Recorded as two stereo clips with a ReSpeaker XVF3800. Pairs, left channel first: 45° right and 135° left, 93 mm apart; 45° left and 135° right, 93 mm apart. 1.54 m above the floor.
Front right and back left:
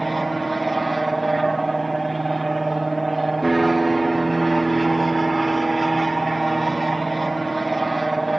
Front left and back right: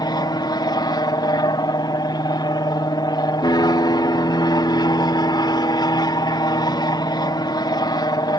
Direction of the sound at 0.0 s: 45° left.